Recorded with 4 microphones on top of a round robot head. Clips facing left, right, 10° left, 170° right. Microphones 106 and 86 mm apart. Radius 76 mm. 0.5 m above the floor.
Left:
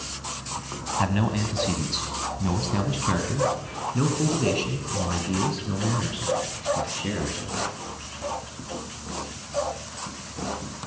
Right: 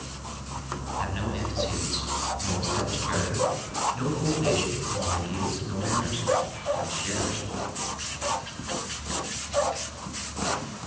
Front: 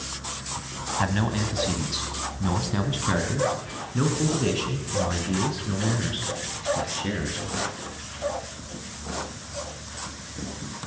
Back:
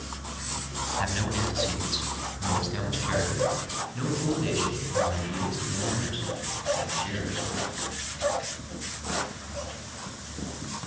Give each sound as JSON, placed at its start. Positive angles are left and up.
{"t": 1.0, "sound": "a man speaking", "azimuth_deg": 60, "distance_m": 3.0}